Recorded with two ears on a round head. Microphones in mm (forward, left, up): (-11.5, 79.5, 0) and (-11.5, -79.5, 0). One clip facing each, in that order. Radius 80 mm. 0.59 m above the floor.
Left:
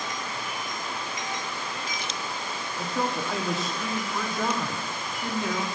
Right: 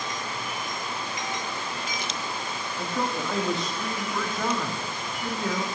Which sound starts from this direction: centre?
A man speaking, at 2.8 s.